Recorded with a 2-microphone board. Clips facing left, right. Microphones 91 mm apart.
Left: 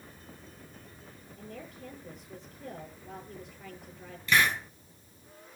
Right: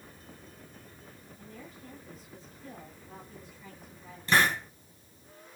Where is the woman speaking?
75° left (ahead or behind), 8.5 m.